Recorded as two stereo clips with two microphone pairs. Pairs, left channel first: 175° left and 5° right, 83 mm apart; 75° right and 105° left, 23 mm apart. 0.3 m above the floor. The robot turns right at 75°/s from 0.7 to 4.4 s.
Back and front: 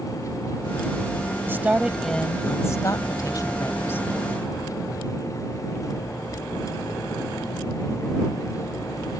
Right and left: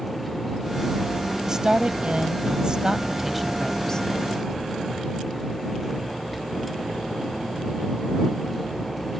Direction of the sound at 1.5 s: 45° left.